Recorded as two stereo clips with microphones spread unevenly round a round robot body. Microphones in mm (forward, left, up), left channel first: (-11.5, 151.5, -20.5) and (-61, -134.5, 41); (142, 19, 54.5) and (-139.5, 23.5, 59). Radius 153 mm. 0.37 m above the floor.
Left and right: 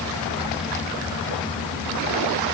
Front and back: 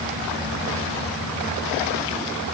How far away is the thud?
No thud in this recording.